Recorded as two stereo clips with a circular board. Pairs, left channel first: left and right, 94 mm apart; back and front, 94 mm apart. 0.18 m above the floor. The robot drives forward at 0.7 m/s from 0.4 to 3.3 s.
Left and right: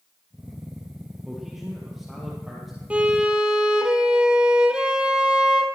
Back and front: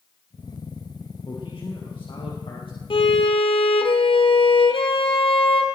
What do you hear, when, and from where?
1.2 s a man speaking: 175° right, 4 m; by 2.8 s straight behind, 5 m
2.9 s a violin: 165° right, 1.0 m; by 5.7 s 170° right, 1.3 m